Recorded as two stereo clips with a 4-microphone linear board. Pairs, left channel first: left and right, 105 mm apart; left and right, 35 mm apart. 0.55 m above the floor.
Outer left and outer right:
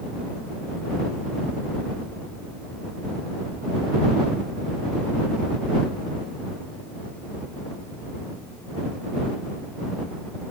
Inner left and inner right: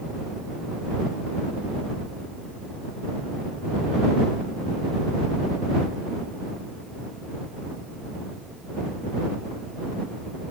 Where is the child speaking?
No child speaking in this recording.